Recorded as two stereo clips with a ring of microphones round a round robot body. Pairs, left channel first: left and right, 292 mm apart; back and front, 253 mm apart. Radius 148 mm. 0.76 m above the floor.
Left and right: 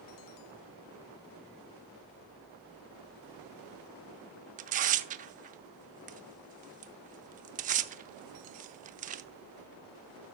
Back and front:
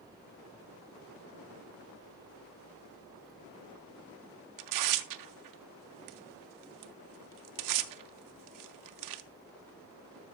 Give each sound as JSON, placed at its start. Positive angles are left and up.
{"t": 4.6, "sound": "tearing paper", "azimuth_deg": -25, "distance_m": 0.7}